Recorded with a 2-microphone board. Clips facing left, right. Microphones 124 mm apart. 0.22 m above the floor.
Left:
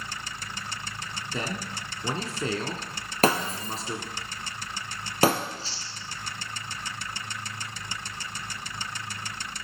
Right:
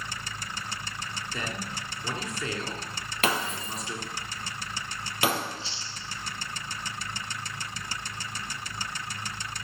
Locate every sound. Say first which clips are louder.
1.3 s a man speaking: left 3 dB; 30° left (ahead or behind), 2 m
3.2 s breaking glass: left 5 dB; 40° left (ahead or behind), 2 m
5.4 s chewing: even; 40° left (ahead or behind), 2 m